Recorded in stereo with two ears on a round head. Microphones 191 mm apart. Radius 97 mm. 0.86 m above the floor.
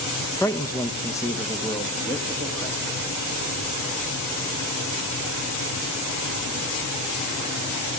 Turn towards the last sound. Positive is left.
turn(degrees=10)  # may be behind; listen again after turning